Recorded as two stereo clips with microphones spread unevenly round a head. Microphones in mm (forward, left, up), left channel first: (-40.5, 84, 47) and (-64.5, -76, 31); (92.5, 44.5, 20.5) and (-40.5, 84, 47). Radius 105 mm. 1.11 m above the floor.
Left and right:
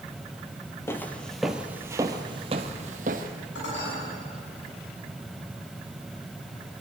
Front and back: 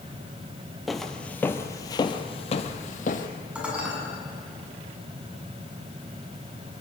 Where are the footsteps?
105° left, 1.1 m; by 3.3 s 60° right, 1.5 m.